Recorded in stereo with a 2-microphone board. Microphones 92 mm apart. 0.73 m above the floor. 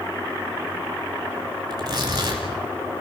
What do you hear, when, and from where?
1.7 s tearing paper: 45° right (ahead or behind), 4 m